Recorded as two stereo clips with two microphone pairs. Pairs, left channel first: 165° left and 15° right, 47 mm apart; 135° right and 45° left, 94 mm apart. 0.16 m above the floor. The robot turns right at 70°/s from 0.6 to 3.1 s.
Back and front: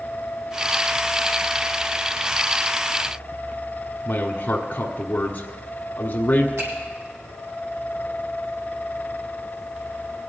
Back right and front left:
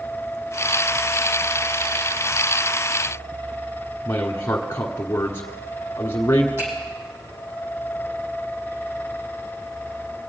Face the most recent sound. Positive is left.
turn(degrees=-15)